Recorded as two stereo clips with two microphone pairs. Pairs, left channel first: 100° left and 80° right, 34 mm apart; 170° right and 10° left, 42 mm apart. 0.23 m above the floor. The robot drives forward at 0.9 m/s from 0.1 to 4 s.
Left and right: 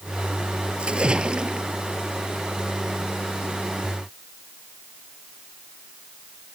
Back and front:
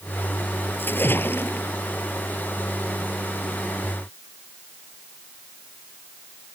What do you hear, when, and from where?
0.8 s a splash: 135° right; by 1.7 s 140° right